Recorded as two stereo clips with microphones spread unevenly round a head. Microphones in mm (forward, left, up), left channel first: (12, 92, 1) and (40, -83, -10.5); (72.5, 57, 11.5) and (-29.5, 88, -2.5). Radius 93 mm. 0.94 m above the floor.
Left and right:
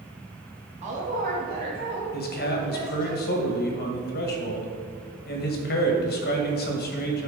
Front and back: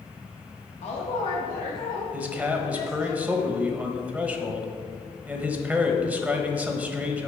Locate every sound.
0.8 s a woman speaking: 40° right, 1.2 m; by 3.1 s 70° right, 3 m
2.1 s a man speaking: 100° left, 1.2 m